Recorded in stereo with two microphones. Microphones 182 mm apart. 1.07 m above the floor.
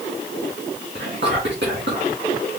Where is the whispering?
80° right, 1.5 m.